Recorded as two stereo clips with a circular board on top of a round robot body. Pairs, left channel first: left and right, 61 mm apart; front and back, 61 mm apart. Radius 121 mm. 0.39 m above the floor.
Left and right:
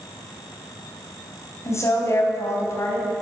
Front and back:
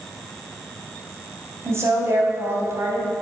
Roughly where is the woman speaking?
Behind left.